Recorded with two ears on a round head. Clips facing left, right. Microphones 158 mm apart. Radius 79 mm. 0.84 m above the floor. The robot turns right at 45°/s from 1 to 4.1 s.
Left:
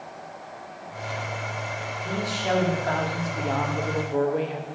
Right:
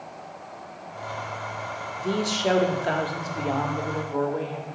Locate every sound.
2.0 s a man speaking: 70° right, 1.6 m; by 4.8 s 25° left, 1.6 m